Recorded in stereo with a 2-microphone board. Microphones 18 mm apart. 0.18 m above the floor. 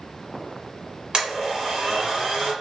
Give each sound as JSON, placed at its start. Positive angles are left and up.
{"t": 1.1, "sound": "a blender", "side_deg": -40, "distance_m": 1.4}